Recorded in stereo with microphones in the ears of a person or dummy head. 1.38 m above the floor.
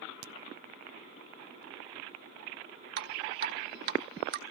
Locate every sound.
0.2 s a crack: 70° right (ahead or behind), 0.5 m
3.0 s dripping: 50° right (ahead or behind), 1.1 m